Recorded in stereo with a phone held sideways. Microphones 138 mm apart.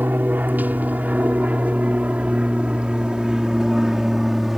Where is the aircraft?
10° right (ahead or behind); by 4.6 s centre (ahead or behind).